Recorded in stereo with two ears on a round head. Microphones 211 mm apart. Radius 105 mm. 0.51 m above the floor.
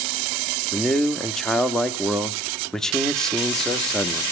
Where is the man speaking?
Centre (ahead or behind), 0.8 m.